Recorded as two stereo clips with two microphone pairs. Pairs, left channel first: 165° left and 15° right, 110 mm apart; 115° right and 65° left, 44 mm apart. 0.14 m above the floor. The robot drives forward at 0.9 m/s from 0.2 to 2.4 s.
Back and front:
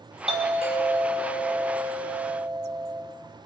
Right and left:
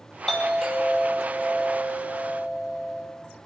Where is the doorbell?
35° right, 5.5 m; by 3.0 s 55° right, 4 m.